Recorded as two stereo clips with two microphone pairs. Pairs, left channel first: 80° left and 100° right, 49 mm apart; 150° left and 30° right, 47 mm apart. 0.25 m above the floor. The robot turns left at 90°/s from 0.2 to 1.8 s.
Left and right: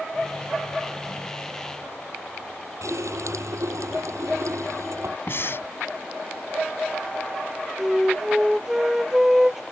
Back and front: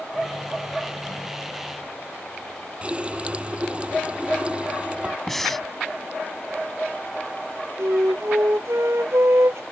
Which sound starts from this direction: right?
A running tap, at 2.8 s.